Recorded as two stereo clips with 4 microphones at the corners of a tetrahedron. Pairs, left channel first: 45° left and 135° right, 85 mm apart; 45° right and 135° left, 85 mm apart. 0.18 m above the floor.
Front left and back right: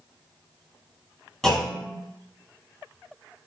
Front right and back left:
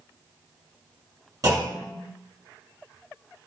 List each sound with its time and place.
1.4 s a clunk: 125° left, 1.9 m